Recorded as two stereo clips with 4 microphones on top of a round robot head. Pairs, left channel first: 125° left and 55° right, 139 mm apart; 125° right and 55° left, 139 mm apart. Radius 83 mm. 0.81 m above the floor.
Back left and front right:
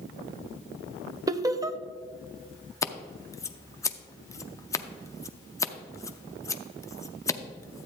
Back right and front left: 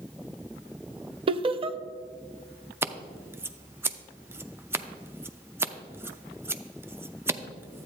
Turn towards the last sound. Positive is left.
turn(degrees=100)